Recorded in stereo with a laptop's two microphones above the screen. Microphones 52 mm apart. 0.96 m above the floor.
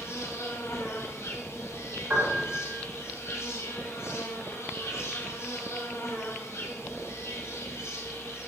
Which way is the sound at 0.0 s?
65° left (ahead or behind).